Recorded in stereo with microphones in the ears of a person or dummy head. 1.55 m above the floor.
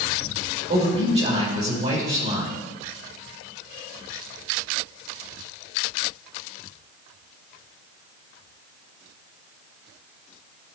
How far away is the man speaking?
About 5.5 m.